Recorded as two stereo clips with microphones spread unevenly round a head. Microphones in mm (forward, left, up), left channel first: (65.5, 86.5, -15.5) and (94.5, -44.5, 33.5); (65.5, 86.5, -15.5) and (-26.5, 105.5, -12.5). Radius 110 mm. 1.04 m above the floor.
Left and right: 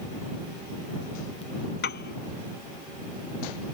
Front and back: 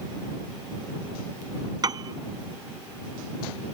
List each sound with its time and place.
1.8 s a piano: 125° left